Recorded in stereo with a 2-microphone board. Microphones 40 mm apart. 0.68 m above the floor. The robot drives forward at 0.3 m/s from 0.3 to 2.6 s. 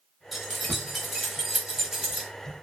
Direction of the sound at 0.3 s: 5° right (ahead or behind).